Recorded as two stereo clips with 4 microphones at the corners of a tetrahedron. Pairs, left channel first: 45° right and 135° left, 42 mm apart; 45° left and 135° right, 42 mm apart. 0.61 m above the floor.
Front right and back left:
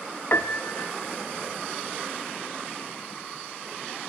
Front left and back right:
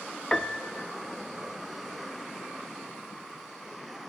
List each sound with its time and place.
0.3 s a piano: 30° right, 0.5 m